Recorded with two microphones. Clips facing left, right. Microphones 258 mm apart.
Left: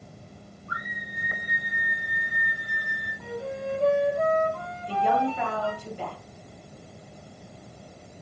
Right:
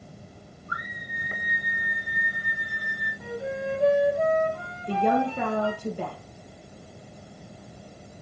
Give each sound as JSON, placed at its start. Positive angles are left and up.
{"t": 0.7, "sound": "a scream", "side_deg": 80, "distance_m": 7.5}
{"t": 3.2, "sound": "a flute", "side_deg": -15, "distance_m": 1.9}
{"t": 4.9, "sound": "a woman speaking", "side_deg": -55, "distance_m": 3.0}